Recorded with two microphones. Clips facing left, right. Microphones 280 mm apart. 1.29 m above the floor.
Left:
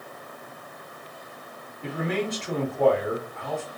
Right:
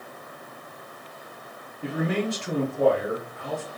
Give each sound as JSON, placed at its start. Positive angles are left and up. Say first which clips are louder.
{"t": 1.8, "sound": "a man speaking", "louder": "right 2 dB", "side_deg": -35, "distance_m": 1.1}